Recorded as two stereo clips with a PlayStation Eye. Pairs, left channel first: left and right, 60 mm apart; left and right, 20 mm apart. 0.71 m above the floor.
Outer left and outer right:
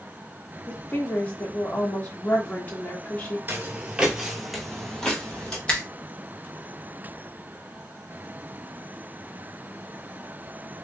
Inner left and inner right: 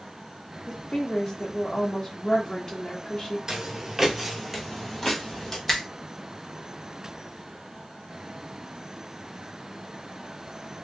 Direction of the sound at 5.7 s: 20° left (ahead or behind).